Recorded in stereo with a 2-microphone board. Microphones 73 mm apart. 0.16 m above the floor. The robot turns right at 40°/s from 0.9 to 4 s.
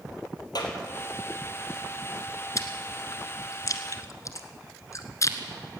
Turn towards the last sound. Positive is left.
turn(degrees=45)  # may be behind; listen again after turning